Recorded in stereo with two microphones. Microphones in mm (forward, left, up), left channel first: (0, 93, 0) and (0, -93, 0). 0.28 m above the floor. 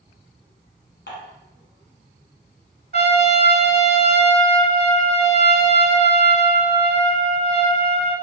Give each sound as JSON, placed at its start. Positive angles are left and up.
{"t": 1.1, "sound": "dishes clattering", "side_deg": 65, "distance_m": 1.5}
{"t": 2.9, "sound": "a trumpet", "side_deg": -60, "distance_m": 0.6}